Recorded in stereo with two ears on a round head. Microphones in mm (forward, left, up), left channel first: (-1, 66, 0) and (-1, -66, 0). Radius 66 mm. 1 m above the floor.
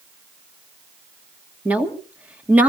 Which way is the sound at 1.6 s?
10° right (ahead or behind).